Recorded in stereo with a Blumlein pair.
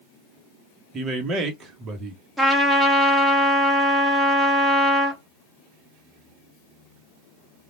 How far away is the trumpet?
About 1.4 m.